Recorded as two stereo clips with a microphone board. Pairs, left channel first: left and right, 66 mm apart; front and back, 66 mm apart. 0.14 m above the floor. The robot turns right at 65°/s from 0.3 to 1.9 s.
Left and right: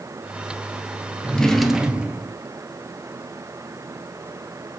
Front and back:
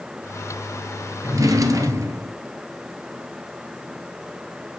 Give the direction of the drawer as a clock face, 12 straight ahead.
7 o'clock.